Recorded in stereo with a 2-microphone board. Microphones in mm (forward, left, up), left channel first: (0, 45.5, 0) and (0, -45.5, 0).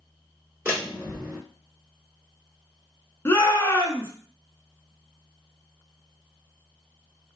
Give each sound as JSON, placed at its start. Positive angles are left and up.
{"t": 0.7, "sound": "a door slam", "side_deg": -25, "distance_m": 1.7}
{"t": 3.2, "sound": "a shout", "side_deg": 25, "distance_m": 1.1}